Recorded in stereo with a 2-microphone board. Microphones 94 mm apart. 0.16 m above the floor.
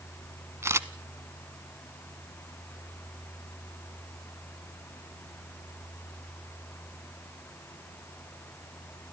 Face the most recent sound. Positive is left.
turn(degrees=-30)  # may be behind; listen again after turning